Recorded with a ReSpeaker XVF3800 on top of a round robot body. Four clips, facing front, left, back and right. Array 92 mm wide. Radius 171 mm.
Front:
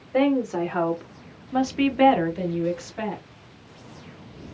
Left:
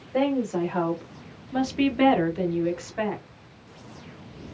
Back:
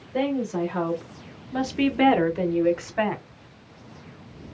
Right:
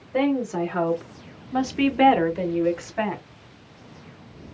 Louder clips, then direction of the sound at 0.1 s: Right 1 dB, front 4 dB; 15° right.